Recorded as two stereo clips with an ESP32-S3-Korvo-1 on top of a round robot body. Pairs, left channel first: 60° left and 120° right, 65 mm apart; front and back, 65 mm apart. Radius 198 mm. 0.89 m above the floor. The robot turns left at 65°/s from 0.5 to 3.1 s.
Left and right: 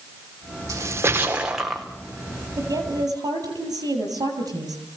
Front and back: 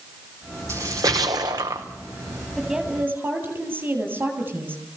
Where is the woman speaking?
85° right, 8.5 m; by 4.8 s 120° right, 8.5 m.